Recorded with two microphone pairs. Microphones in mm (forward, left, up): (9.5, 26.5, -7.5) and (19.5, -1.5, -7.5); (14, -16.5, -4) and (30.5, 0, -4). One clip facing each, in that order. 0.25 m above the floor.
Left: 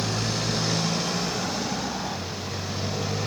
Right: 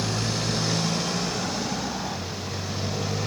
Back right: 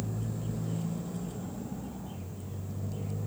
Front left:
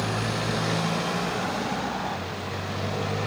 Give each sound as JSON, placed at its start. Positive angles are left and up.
{"t": 0.0, "sound": "a motorcycle", "azimuth_deg": 20}